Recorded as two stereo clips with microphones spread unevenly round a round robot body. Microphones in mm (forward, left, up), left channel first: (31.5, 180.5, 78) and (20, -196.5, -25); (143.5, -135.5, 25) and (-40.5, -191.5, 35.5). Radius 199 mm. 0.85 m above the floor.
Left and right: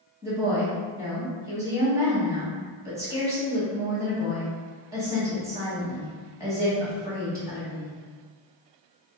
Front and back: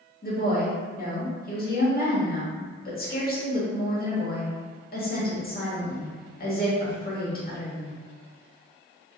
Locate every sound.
0.2 s a woman speaking: 20° right, 1.6 m